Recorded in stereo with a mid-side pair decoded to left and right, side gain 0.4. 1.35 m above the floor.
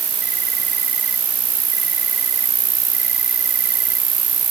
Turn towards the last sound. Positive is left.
turn(degrees=-65)